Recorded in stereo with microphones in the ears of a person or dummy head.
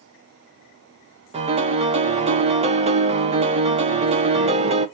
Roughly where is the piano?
Right.